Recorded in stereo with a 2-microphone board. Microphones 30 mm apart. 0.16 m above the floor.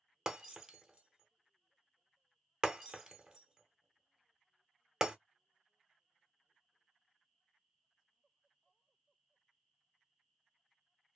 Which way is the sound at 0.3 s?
30° right (ahead or behind).